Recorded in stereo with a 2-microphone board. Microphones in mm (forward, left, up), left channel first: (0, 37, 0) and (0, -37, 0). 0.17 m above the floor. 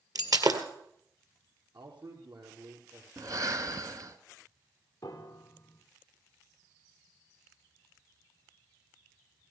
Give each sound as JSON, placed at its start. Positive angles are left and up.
{"t": 0.1, "sound": "breaking glass", "side_deg": -60, "distance_m": 1.9}
{"t": 1.7, "sound": "a man speaking", "side_deg": -75, "distance_m": 4.5}
{"t": 3.2, "sound": "breathing", "side_deg": -50, "distance_m": 1.2}
{"t": 5.0, "sound": "a piano", "side_deg": 45, "distance_m": 2.5}